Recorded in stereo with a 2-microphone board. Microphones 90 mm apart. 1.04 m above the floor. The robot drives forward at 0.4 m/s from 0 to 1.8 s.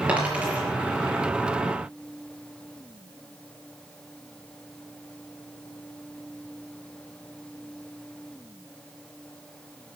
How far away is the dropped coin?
About 5 m.